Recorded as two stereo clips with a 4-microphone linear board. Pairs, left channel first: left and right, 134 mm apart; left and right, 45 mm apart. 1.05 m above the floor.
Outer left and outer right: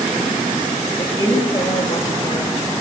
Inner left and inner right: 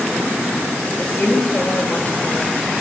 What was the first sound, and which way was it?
A woman speaking, 25° left (ahead or behind).